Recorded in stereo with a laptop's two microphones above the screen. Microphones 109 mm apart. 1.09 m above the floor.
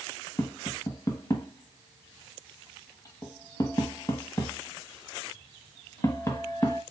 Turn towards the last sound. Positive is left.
turn(degrees=30)  # may be behind; listen again after turning